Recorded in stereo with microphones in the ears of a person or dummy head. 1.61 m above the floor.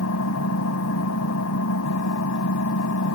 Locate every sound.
0.0 s an engine running: 80° left